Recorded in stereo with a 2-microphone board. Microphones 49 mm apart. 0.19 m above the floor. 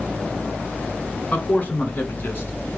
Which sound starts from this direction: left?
A man speaking, at 1.3 s.